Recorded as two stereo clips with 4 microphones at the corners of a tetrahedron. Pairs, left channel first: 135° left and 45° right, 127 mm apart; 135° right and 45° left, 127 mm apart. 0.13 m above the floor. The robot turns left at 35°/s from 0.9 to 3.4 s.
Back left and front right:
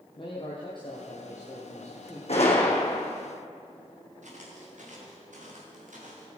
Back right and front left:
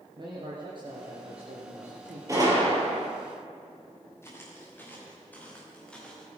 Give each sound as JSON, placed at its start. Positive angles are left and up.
{"t": 0.2, "sound": "a man speaking", "azimuth_deg": 90, "distance_m": 3.0}
{"t": 2.3, "sound": "a gunshot", "azimuth_deg": 110, "distance_m": 3.5}
{"t": 4.2, "sound": "footsteps", "azimuth_deg": -65, "distance_m": 5.0}